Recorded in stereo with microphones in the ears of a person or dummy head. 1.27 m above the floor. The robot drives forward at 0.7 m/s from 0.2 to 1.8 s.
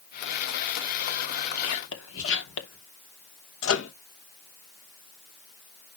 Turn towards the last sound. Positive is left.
turn(degrees=75)  # may be behind; listen again after turning